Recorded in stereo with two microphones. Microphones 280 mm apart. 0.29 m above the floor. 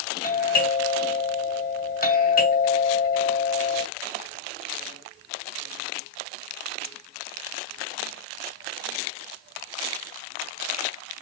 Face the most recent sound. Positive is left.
turn(degrees=30)  # may be behind; listen again after turning